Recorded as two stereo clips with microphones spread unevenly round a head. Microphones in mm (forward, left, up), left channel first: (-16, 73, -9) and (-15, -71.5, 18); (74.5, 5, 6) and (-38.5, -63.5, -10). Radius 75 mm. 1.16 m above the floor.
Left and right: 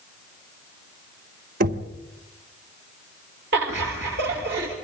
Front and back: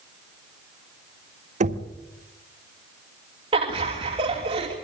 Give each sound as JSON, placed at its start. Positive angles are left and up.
{"t": 1.6, "sound": "knocking", "azimuth_deg": -110, "distance_m": 1.8}
{"t": 3.5, "sound": "laughter", "azimuth_deg": -100, "distance_m": 3.0}